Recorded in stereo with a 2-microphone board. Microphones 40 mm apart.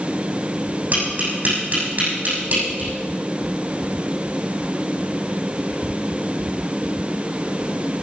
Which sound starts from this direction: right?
Tapping, at 0.9 s.